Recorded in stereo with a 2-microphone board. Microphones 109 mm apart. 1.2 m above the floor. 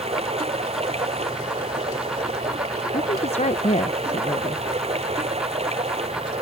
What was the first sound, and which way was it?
Running water, 70° right (ahead or behind).